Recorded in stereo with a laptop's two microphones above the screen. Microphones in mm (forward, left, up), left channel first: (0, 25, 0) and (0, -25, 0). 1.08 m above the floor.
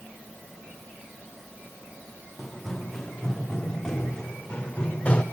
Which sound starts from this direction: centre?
Running footsteps, at 2.4 s.